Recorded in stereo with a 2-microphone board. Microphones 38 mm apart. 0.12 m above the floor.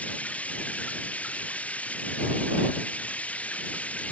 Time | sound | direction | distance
0.0 | running water | 35° left (ahead or behind) | ?